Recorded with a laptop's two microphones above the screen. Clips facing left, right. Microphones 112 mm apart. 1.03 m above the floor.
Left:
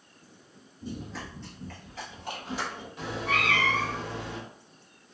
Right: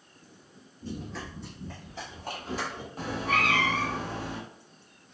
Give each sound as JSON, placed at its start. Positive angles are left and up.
{"t": 0.8, "sound": "running footsteps", "side_deg": 15, "distance_m": 1.1}
{"t": 3.0, "sound": "a cat meowing", "side_deg": -40, "distance_m": 0.9}